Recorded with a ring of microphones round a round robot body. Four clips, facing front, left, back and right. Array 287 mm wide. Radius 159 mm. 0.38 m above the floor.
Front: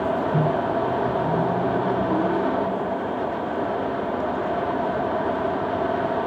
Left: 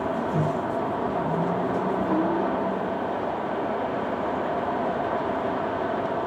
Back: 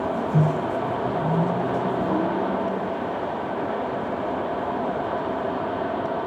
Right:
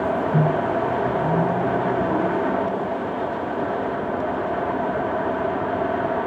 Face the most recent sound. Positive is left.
turn(degrees=-75)